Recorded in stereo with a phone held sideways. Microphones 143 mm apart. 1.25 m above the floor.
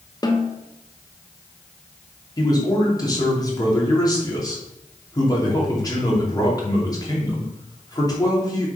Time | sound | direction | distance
0.2 | a snare drum | 25° left (ahead or behind) | 1.2 m
2.4 | a man speaking | 25° left (ahead or behind) | 3 m